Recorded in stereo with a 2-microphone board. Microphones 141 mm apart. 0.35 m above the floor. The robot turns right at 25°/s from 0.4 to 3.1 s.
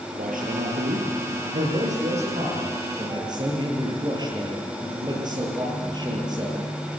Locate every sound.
0.2 s a man speaking: 100° right, 8.5 m; by 6.6 s 30° right, 8.5 m